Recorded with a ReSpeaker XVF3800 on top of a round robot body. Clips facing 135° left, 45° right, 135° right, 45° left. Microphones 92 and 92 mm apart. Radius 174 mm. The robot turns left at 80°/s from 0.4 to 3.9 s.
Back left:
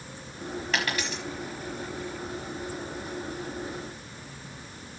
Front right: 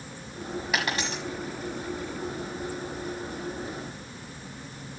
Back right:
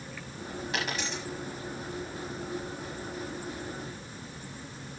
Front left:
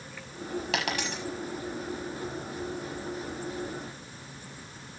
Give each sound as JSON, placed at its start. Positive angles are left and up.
{"t": 0.7, "sound": "a dropped coin", "azimuth_deg": 35, "distance_m": 1.0}